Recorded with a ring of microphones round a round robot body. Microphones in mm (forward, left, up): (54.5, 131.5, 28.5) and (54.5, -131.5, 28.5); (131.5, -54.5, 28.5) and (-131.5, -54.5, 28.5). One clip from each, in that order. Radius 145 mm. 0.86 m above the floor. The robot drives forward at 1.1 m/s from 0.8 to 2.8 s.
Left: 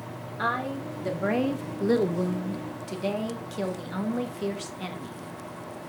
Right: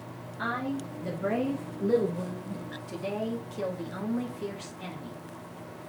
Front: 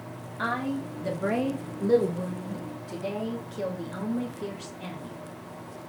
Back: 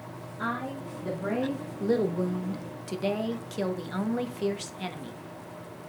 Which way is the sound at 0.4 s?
30° left.